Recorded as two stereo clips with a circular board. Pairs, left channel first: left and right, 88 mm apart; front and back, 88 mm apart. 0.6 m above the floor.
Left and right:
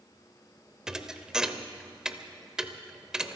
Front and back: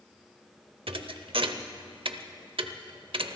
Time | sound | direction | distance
0.9 | a thud | 175° right | 0.7 m